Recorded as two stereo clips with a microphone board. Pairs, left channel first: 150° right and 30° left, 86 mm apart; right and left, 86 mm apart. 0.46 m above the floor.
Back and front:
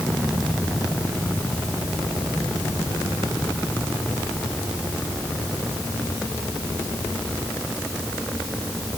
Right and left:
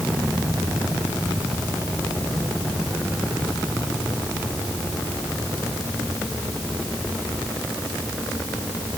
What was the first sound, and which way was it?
Only background noise.